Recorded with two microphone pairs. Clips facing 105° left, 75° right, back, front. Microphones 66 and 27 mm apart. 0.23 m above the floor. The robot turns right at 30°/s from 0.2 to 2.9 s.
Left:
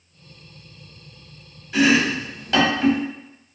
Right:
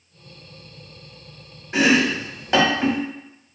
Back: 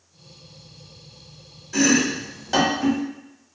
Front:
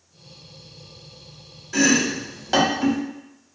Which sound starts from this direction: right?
Chopping, at 1.7 s.